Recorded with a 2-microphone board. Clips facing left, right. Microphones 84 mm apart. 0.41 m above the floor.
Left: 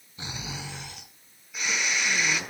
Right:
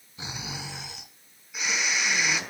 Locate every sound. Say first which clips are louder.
0.2 s snoring: even; 5° right (ahead or behind), 2 m